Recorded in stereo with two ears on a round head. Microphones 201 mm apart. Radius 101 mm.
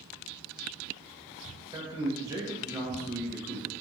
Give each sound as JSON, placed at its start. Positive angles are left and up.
{"t": 1.7, "sound": "a man speaking", "side_deg": -15, "distance_m": 0.9}